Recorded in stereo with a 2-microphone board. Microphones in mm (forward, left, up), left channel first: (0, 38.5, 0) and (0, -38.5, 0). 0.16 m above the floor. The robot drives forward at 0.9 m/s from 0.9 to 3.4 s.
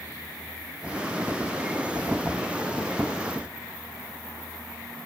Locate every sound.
Only background noise.